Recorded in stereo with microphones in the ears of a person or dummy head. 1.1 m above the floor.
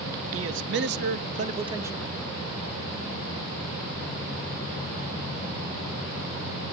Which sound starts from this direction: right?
A man speaking, at 0.3 s.